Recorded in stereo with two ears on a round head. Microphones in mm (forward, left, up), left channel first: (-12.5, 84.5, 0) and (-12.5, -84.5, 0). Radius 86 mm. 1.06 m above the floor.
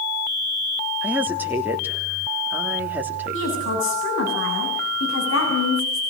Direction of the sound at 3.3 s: 70° left (ahead or behind).